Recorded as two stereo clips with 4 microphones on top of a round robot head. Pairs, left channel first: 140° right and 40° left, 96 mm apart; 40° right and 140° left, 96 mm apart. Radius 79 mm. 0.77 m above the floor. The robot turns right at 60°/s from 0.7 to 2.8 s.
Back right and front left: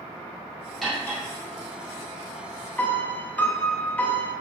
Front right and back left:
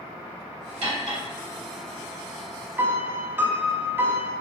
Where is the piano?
170° left, 0.5 m.